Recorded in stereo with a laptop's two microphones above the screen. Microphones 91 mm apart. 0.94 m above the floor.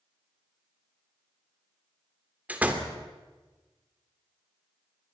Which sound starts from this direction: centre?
A door slam, at 2.5 s.